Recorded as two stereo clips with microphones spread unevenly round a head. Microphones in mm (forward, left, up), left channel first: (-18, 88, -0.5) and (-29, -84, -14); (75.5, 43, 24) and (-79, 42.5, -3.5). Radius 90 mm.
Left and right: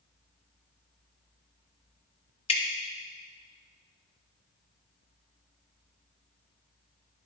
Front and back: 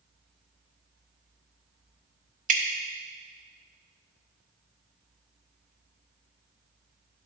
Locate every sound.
2.5 s dripping: 145° left, 0.9 m